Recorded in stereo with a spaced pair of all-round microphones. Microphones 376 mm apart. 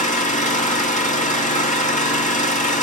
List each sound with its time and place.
0.0 s an engine running: 20° left (ahead or behind), 2.5 m